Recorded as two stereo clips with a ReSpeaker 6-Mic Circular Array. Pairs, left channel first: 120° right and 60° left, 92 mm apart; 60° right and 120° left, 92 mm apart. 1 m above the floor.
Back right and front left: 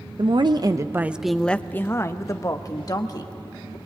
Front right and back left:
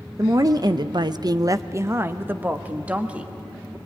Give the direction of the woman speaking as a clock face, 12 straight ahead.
10 o'clock.